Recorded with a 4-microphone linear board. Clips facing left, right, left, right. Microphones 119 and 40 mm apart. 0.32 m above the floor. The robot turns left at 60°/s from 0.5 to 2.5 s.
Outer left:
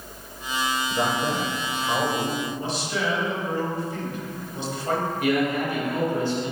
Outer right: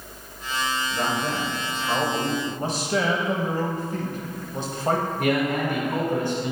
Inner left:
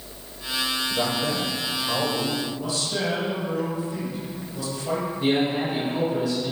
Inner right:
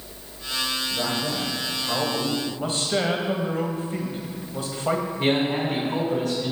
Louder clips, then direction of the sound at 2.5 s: Outer right 2 dB, inner right 2 dB; 45° right (ahead or behind).